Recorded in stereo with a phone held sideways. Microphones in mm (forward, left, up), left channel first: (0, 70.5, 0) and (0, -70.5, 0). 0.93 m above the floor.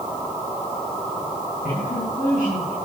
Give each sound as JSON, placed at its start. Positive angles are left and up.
{"t": 1.6, "sound": "a woman speaking", "side_deg": 85, "distance_m": 8.5}